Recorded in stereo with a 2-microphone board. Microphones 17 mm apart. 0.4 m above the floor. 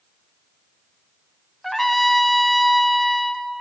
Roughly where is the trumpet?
Centre.